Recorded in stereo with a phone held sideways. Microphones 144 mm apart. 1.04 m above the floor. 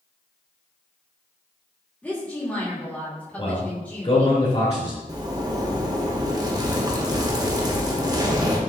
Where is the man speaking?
45° left (ahead or behind), 2 m.